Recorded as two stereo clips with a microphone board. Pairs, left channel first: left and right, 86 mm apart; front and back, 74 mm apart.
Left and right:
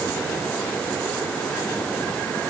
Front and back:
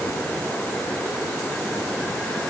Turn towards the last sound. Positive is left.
No sound to turn to.